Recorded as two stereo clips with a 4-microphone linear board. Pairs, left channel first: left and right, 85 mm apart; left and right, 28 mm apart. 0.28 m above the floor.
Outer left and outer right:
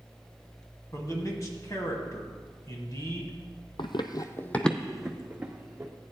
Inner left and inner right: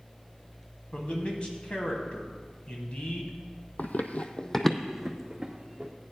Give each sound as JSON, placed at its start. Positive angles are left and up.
{"t": 0.9, "sound": "a man speaking", "side_deg": 40, "distance_m": 1.9}
{"t": 3.8, "sound": "running footsteps", "side_deg": 75, "distance_m": 0.7}